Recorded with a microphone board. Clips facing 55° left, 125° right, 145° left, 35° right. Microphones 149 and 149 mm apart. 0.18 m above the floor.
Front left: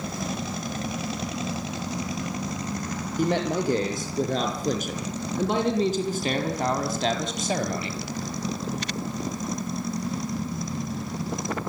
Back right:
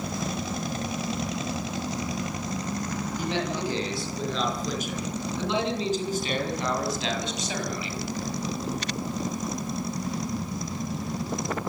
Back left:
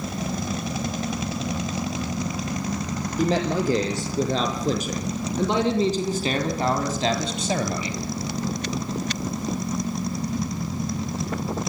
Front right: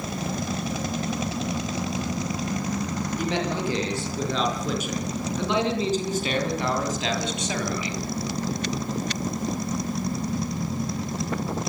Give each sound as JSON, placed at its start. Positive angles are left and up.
{"t": 3.2, "sound": "a man speaking", "azimuth_deg": 95, "distance_m": 6.0}